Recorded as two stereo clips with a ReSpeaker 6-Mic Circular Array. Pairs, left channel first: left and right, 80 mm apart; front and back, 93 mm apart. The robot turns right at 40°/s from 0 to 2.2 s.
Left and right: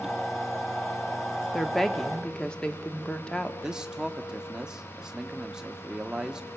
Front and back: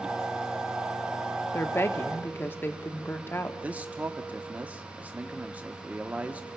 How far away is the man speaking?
About 0.8 m.